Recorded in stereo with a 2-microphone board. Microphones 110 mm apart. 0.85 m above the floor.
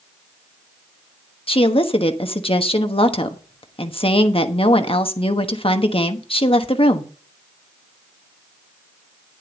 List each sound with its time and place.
1.5 s a woman speaking: 55° left (ahead or behind), 1.1 m